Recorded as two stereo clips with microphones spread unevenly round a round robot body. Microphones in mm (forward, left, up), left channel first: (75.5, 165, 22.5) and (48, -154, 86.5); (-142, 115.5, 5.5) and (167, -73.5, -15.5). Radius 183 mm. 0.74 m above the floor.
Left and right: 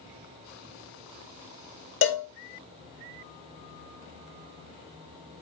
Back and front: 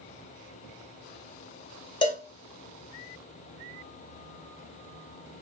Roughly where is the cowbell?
Left.